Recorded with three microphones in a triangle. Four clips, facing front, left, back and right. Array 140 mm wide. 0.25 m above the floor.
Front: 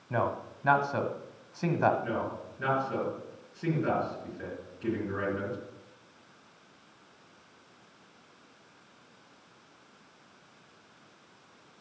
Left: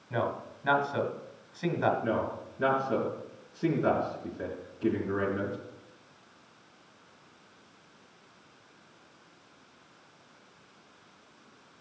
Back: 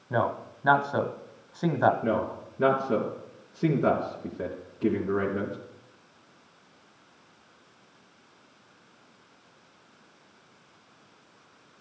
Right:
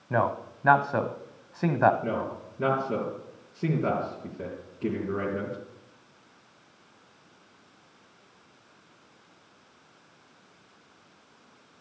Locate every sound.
0.1 s a man speaking: 110° right, 1.3 m
2.0 s a man speaking: 165° right, 3.5 m